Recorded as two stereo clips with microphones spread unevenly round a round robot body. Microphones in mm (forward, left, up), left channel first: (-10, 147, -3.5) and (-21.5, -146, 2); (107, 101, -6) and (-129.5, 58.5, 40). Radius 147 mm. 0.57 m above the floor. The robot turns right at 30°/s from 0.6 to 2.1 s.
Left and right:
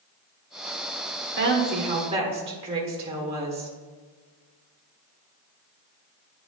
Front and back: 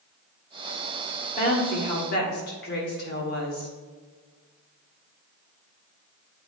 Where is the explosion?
I don't hear an explosion.